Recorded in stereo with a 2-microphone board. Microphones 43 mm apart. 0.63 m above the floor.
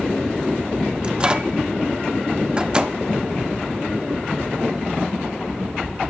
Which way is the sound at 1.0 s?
20° right (ahead or behind).